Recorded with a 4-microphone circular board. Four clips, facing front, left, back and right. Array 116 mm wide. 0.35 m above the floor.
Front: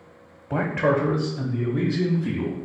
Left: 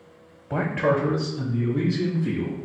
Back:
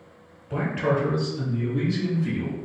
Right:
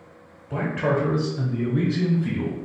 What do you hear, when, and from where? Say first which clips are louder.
0.5 s a man speaking: left 1 dB, front 3 dB; 30° left, 0.9 m; by 2.6 s 65° right, 1.5 m